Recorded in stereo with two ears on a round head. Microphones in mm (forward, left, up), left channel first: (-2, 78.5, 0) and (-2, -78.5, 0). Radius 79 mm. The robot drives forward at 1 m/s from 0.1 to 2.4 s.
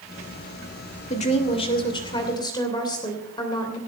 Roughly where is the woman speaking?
Left.